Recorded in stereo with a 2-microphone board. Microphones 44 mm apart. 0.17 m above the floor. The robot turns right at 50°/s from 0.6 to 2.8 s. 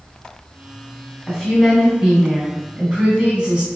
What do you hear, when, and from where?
1.3 s a woman speaking: 5° left (ahead or behind), 1.4 m; by 3.7 s 25° right (ahead or behind), 1.4 m